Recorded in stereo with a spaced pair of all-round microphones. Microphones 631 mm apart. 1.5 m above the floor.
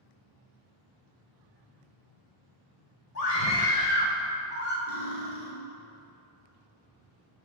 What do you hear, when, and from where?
3.1 s a scream: 80° left, 1.1 m; by 4.8 s 15° left (ahead or behind), 1.2 m
4.9 s cutlery clinking: 60° left (ahead or behind), 1.2 m